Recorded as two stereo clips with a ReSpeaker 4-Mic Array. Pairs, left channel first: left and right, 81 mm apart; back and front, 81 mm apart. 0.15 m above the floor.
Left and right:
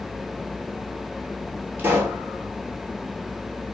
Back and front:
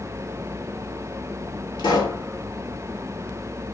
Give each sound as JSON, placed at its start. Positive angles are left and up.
{"t": 1.8, "sound": "a pop", "azimuth_deg": -155, "distance_m": 1.0}